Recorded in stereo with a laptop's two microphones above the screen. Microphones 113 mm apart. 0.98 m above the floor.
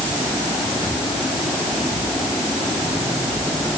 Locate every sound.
Only background noise.